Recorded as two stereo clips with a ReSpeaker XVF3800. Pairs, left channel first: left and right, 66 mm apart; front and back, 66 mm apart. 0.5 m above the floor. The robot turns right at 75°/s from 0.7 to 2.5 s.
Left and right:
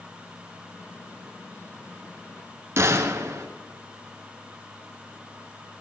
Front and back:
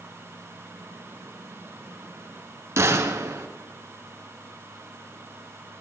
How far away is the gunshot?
About 1.1 m.